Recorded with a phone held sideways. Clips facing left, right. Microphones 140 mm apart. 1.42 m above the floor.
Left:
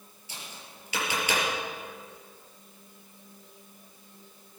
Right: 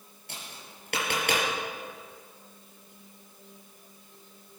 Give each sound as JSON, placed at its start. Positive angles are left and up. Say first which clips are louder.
{"t": 0.3, "sound": "tapping", "louder": "even", "side_deg": -60, "distance_m": 5.0}